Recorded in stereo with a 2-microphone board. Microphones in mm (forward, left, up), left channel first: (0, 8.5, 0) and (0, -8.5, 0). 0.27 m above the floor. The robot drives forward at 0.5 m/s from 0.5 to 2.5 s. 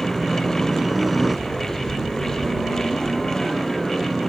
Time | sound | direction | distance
0.0 | a helicopter | 5° right (ahead or behind) | ?